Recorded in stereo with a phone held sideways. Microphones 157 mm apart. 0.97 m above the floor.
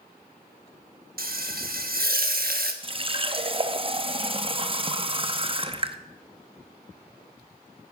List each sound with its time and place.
1.2 s frying: 70° right (ahead or behind), 1.2 m
2.8 s a running tap: 35° right (ahead or behind), 0.8 m